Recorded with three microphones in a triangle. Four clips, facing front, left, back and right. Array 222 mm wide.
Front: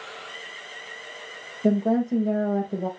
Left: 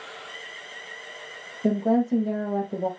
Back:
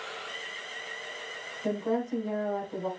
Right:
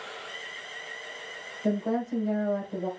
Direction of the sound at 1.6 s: 45° left.